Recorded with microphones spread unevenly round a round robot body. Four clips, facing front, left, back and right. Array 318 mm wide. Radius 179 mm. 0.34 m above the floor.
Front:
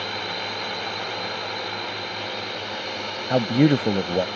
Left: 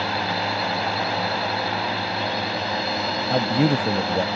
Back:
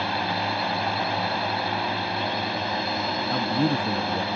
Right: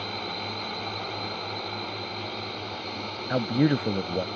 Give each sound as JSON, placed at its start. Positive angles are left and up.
{"t": 0.0, "sound": "a drone", "azimuth_deg": 125}
{"t": 3.3, "sound": "a man speaking", "azimuth_deg": 25}